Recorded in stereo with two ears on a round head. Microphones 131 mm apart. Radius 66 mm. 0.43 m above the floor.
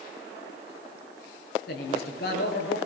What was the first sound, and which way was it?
A woman speaking, 75° left (ahead or behind).